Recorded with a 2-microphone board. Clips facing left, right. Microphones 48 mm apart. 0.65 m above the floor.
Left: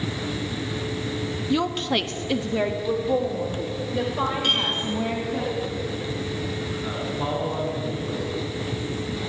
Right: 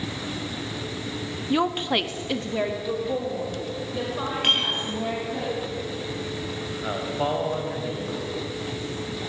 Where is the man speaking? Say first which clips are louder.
Right 4 dB; 65° right (ahead or behind), 4 m.